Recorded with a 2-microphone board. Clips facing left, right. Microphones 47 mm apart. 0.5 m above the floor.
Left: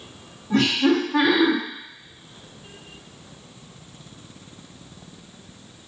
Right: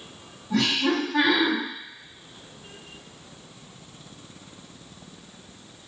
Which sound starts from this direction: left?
Laughter, at 0.5 s.